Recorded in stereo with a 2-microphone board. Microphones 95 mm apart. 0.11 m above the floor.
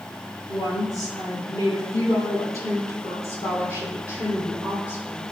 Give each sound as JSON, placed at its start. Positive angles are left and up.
{"t": 0.5, "sound": "a woman speaking", "side_deg": 40, "distance_m": 2.5}